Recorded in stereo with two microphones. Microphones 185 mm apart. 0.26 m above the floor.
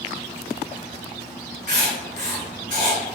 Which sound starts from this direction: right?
Writing, at 1.7 s.